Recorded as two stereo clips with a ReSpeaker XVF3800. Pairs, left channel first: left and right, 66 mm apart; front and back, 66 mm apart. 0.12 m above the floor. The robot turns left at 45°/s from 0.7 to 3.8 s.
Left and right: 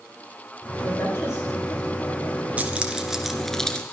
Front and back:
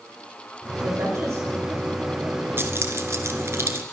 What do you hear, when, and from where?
0.8 s a woman speaking: 145° left, 5.5 m; by 2.5 s 75° left, 5.5 m
2.6 s keys jangling: 145° right, 1.3 m; by 3.8 s 155° left, 1.3 m